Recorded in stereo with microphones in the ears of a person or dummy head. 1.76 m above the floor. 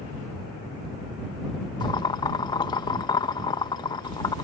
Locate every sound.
1.8 s boiling: 25° left (ahead or behind)